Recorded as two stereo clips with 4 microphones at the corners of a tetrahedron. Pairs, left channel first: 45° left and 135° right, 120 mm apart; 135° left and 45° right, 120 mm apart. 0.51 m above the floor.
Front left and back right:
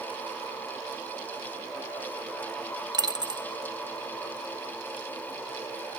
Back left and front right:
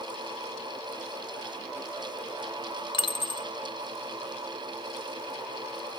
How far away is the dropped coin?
About 0.8 m.